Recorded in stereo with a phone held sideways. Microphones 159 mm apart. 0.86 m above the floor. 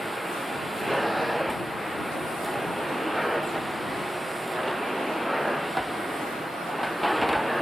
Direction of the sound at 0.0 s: Centre (ahead or behind).